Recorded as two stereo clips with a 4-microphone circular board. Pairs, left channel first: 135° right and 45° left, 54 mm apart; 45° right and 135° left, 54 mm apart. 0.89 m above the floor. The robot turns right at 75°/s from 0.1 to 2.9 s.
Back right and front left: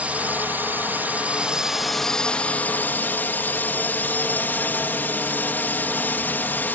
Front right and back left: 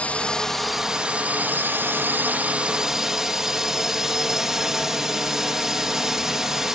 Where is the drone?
5° left; by 6.8 s 145° right.